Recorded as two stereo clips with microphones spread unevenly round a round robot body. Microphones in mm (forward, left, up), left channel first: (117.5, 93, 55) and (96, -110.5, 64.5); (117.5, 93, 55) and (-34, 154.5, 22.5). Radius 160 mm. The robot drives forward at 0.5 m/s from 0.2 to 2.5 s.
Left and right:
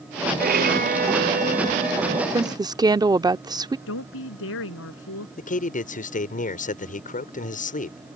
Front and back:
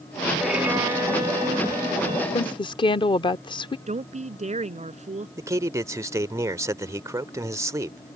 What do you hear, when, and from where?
0.4 s a violin: 125° right; by 2.2 s 150° right
2.3 s a woman speaking: 45° right; by 3.8 s 55° right
3.9 s a woman speaking: 110° left
5.4 s a man speaking: 105° left